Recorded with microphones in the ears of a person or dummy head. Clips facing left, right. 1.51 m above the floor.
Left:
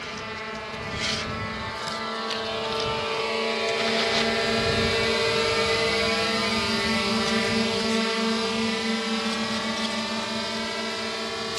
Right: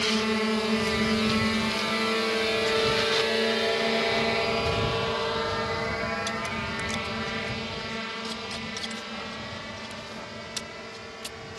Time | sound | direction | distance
0.0 | a drone | 55° right (ahead or behind) | ?